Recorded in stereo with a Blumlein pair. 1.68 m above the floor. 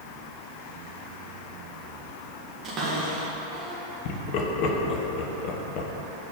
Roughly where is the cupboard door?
Ahead right.